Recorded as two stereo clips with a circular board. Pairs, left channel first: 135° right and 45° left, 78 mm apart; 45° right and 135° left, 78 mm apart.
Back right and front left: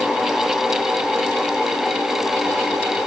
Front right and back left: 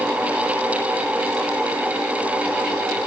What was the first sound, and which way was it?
Only background noise.